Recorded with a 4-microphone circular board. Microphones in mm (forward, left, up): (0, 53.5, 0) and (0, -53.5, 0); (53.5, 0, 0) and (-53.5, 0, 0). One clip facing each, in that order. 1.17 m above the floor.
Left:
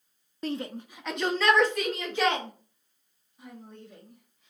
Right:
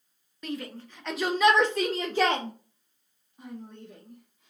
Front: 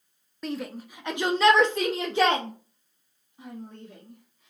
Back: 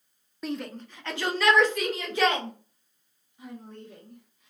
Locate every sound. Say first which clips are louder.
0.4 s a shout: left 3 dB, even; 90° left, 0.6 m; by 4.5 s 60° right, 1.9 m